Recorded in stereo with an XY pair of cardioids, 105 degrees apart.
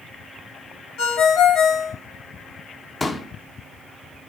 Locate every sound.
1.0 s a ringtone: 65° left, 4 m
3.0 s a pop: 20° left, 1.6 m